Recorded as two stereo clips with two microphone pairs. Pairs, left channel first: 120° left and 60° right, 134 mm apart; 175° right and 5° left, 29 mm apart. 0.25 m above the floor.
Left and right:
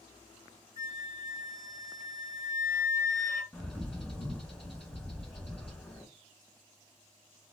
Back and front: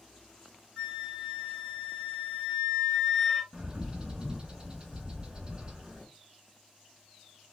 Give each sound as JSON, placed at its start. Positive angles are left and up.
{"t": 0.8, "sound": "a flute", "azimuth_deg": 120, "distance_m": 2.0}
{"t": 3.5, "sound": "a bird", "azimuth_deg": 45, "distance_m": 1.5}